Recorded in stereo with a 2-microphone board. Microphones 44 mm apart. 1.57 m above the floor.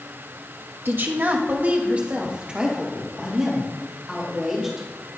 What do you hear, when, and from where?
0.8 s a woman speaking: 55° right (ahead or behind), 1.0 m; by 5.1 s 5° right (ahead or behind), 3.5 m